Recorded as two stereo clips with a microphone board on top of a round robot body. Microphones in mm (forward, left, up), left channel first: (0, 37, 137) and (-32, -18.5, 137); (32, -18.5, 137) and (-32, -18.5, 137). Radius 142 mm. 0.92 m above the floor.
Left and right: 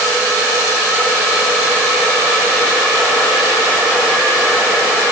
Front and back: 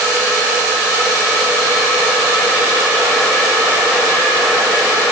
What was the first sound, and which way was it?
Only background noise.